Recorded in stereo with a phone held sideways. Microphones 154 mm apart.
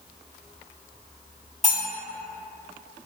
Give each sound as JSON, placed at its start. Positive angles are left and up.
{"t": 1.6, "sound": "cutlery clinking", "side_deg": 40, "distance_m": 1.7}